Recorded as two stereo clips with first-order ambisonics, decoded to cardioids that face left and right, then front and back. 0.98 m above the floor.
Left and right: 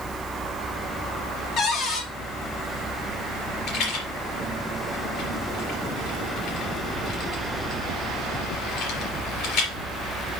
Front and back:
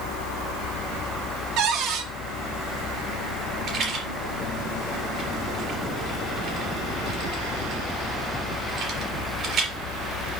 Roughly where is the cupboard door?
Behind left.